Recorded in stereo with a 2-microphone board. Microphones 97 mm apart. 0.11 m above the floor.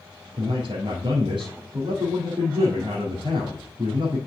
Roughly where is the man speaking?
Right.